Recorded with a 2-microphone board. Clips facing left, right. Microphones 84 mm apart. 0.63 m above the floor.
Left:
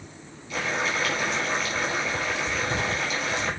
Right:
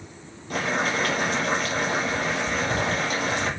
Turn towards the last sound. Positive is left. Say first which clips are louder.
# right 2 dB
turn(degrees=-50)  # may be behind; listen again after turning